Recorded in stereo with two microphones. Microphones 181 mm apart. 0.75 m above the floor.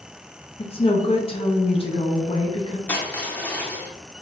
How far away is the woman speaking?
About 0.6 m.